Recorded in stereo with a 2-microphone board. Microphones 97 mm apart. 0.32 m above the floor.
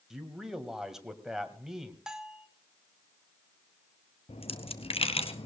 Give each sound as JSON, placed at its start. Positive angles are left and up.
{"t": 0.1, "sound": "a man speaking", "side_deg": -5, "distance_m": 2.5}
{"t": 2.1, "sound": "a bell", "side_deg": -5, "distance_m": 1.4}
{"t": 4.3, "sound": "a dropped coin", "side_deg": 85, "distance_m": 1.3}